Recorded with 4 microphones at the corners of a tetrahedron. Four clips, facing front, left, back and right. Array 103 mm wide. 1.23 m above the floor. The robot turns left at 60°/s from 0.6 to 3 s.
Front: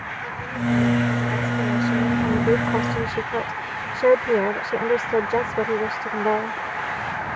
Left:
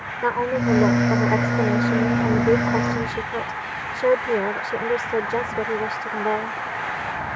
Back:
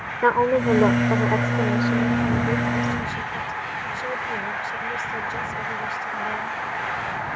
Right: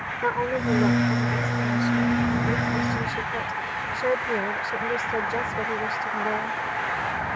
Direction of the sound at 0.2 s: 170° left.